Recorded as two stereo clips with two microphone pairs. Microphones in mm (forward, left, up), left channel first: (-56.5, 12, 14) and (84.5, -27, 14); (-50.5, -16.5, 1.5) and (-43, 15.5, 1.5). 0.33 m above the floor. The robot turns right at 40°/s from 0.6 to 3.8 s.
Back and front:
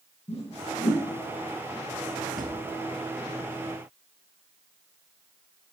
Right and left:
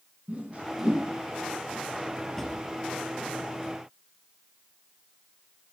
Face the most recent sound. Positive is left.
turn(degrees=35)